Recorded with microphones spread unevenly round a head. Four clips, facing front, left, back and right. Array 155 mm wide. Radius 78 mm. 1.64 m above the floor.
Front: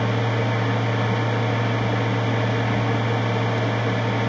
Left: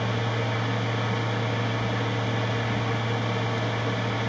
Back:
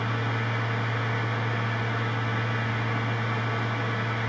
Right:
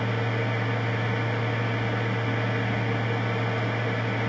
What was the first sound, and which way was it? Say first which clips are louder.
A machine running: even, front 7 dB; straight ahead.